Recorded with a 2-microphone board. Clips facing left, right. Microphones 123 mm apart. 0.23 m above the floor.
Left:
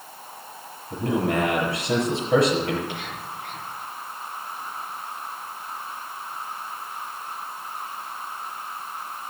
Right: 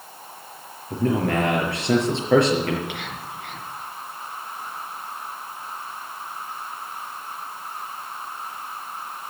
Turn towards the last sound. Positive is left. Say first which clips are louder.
# even
turn(degrees=-65)  # may be behind; listen again after turning